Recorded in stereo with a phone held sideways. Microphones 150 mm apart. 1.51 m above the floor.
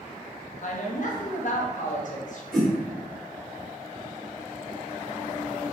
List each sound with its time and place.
0.6 s a woman speaking: 60° left (ahead or behind), 1.0 m
2.5 s a whoosh: centre (ahead or behind), 1.4 m